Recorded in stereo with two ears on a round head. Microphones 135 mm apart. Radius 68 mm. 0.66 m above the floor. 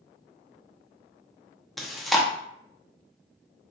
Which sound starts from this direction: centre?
Chewing, at 1.8 s.